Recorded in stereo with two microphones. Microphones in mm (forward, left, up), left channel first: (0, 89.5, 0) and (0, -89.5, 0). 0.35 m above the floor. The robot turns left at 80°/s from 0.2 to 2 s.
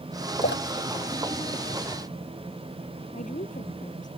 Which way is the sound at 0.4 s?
65° left (ahead or behind).